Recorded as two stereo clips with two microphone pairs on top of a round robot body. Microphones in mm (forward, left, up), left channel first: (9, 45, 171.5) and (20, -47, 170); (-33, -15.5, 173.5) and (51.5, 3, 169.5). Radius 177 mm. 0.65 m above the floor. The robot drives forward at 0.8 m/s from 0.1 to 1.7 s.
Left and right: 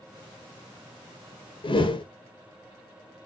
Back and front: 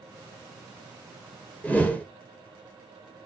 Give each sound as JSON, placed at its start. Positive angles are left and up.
{"t": 1.6, "sound": "a whoosh", "azimuth_deg": 115, "distance_m": 0.7}